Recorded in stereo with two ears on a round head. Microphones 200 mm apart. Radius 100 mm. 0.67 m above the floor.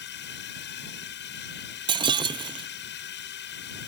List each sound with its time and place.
0.0 s a drone: 50° left (ahead or behind)
1.9 s breaking glass: 20° right (ahead or behind)